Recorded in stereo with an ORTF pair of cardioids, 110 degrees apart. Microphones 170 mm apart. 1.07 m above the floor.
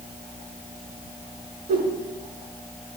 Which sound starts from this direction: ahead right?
A whoosh, at 1.7 s.